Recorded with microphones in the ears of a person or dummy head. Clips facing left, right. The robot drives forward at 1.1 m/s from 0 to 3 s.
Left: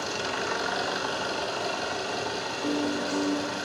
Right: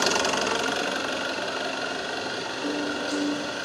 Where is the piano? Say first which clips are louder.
Left 1 dB; 20° right (ahead or behind), 5 m; by 3.6 s 25° right (ahead or behind), 4.5 m.